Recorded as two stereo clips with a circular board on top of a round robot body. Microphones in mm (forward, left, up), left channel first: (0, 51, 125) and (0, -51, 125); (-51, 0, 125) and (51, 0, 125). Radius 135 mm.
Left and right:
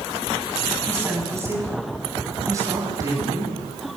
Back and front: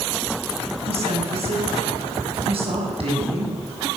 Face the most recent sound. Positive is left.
turn(degrees=-30)